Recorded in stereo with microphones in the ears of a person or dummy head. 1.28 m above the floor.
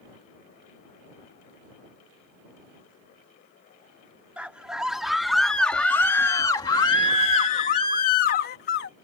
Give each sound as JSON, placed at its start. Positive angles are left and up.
{"t": 4.4, "sound": "a scream", "side_deg": -5}